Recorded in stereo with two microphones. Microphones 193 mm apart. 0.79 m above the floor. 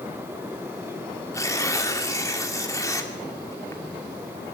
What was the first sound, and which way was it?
Tearing paper, 15° left (ahead or behind).